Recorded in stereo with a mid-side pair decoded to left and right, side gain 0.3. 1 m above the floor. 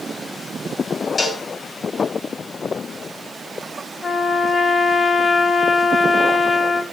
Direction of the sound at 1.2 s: 50° left.